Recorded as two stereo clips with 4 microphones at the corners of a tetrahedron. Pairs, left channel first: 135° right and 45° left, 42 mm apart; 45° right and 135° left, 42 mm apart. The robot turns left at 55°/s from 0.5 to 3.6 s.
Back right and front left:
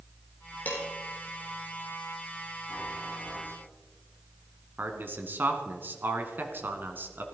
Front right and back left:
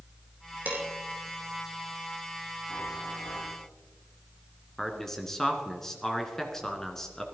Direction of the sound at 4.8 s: 35° left.